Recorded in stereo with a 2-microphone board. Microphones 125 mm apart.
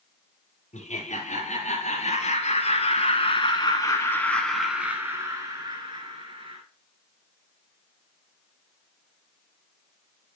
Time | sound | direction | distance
0.7 | laughter | 65° left (ahead or behind) | 3 m